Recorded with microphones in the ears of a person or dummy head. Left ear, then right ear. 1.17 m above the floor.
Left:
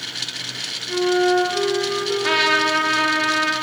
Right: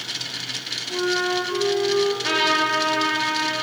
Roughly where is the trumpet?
Left.